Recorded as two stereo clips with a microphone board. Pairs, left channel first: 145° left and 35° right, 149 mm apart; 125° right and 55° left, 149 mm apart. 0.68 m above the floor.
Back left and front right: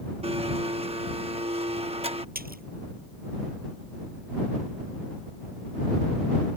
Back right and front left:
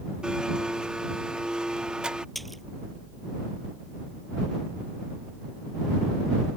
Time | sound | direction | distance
0.2 | a blender | 25° right | ?
2.4 | a splash | 35° right | ?